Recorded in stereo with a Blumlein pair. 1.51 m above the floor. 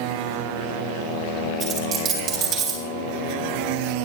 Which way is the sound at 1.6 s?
25° right.